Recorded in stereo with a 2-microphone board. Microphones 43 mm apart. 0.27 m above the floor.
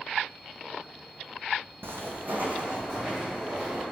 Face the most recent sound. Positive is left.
turn(degrees=-10)  # may be behind; listen again after turning